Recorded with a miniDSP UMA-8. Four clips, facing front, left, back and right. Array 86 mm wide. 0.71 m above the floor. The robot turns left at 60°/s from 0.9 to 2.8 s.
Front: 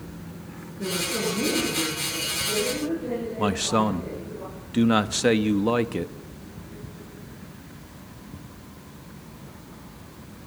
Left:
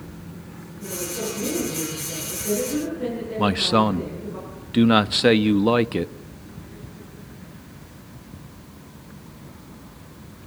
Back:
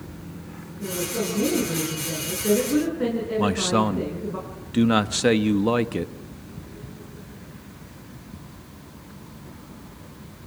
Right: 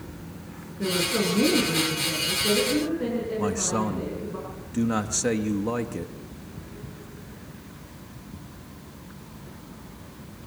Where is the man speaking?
100° left, 0.6 m.